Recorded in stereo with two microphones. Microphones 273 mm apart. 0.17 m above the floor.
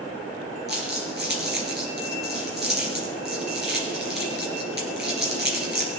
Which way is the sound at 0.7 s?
40° right (ahead or behind).